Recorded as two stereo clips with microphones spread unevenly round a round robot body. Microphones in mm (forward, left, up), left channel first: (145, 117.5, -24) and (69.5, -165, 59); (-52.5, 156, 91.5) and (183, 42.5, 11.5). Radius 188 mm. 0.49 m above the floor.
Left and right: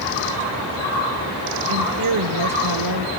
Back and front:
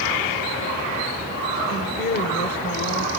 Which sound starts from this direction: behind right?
A woman speaking, at 1.7 s.